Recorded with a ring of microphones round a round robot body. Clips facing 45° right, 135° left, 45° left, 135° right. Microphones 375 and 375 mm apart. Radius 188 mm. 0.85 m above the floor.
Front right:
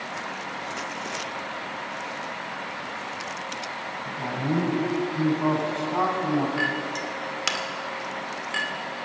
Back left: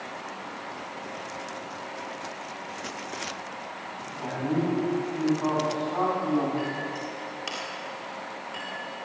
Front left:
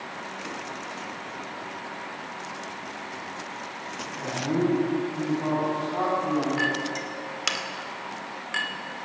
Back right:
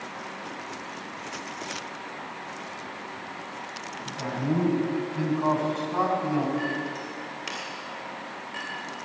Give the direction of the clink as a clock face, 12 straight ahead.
12 o'clock.